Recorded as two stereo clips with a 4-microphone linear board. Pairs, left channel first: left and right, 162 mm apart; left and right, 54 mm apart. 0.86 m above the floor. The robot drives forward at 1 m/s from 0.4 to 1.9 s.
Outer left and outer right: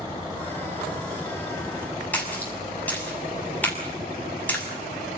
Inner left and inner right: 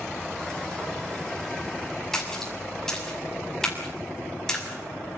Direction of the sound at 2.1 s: 10° left (ahead or behind).